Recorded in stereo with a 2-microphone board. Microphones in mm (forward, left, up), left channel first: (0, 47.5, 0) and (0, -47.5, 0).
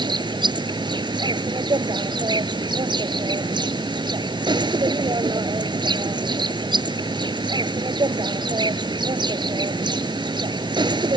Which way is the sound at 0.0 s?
55° right (ahead or behind).